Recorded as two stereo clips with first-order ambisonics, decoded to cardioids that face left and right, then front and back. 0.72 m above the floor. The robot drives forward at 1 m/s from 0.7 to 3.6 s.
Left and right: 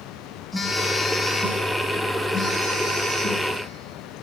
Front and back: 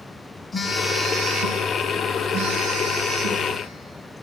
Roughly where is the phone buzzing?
Ahead left.